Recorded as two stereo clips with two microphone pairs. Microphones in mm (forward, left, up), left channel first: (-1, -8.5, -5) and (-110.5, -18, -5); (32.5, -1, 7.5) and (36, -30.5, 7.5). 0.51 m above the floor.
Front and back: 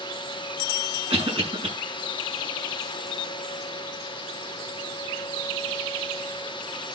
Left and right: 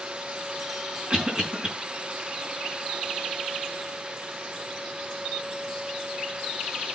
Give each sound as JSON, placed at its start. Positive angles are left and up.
{"t": 1.1, "sound": "a cough", "azimuth_deg": -145, "distance_m": 5.0}